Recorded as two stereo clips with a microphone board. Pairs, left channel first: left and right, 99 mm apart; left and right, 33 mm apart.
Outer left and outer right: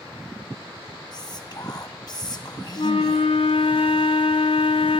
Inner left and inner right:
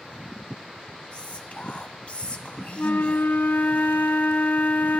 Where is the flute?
65° left (ahead or behind), 1.0 m.